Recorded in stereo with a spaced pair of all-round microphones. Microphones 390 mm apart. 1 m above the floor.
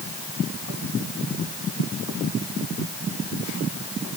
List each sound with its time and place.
Only background noise.